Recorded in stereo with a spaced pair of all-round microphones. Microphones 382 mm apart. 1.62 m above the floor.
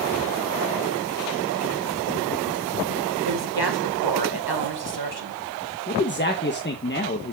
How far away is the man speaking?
About 1.3 m.